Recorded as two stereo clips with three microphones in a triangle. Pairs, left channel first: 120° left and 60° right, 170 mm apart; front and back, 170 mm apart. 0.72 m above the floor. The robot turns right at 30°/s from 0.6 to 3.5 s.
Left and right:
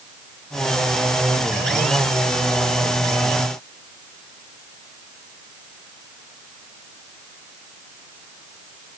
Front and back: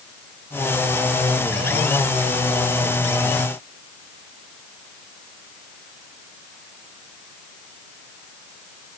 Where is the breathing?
No breathing in this recording.